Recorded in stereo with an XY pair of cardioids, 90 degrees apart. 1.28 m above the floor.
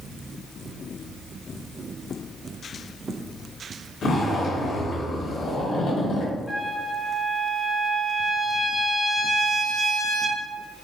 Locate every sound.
4.0 s a zipper: 65° left, 1.4 m
6.5 s a trumpet: 15° left, 0.8 m